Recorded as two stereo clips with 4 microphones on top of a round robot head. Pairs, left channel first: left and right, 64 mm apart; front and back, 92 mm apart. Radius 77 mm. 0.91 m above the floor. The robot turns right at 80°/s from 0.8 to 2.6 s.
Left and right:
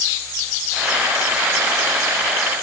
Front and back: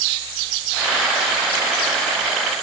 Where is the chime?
I don't hear a chime.